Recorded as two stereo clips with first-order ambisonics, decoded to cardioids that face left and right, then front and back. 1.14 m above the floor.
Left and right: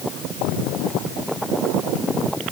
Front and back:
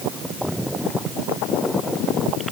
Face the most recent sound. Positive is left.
No sound to turn to.